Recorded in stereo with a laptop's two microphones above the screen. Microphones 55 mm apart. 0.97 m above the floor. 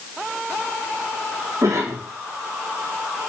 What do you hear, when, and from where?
1.6 s a cough: 70° right (ahead or behind), 2.5 m